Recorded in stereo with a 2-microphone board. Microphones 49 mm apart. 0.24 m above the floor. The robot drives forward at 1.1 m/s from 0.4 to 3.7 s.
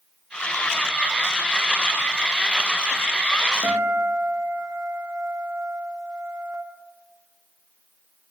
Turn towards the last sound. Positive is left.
turn(degrees=-90)